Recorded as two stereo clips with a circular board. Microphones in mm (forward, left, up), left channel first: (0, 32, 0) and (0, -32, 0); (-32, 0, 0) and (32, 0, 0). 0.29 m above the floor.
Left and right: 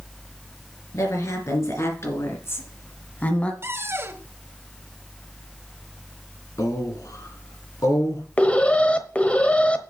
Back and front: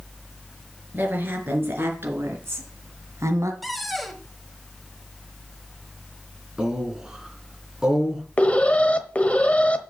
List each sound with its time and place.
0.9 s a woman speaking: 60° left, 4 m; by 3.5 s 20° left, 1.7 m
3.6 s a cupboard door: 90° right, 1.3 m
6.6 s a man speaking: 80° left, 4 m
8.4 s an alarm: 135° left, 1.1 m